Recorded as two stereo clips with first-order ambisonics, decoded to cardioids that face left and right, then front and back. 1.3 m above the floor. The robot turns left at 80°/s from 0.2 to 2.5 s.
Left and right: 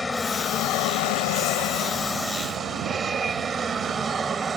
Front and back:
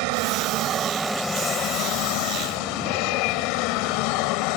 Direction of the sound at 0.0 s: 170° left.